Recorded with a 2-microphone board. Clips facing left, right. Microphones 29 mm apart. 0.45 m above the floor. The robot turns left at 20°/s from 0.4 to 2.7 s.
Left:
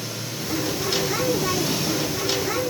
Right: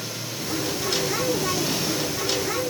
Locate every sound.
Only background noise.